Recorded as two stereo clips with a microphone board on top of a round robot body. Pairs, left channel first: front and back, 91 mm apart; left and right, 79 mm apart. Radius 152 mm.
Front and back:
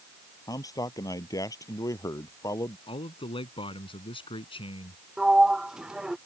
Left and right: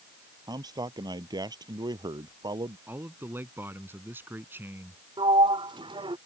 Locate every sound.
0.5 s a man speaking: 50° right; by 2.8 s 55° right
2.9 s a man speaking: 25° right
5.2 s a sliding door: 100° right